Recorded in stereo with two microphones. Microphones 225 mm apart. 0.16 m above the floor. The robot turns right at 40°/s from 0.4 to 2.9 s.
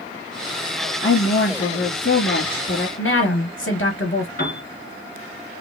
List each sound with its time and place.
1.0 s a woman speaking: 60° left, 3 m; by 2.9 s 130° left, 3 m
3.0 s a woman speaking: 60° left (ahead or behind), 2.5 m
4.4 s a piano: 40° left (ahead or behind), 2.5 m